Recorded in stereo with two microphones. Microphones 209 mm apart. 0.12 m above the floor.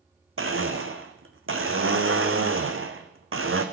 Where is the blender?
85° right, 1.2 m.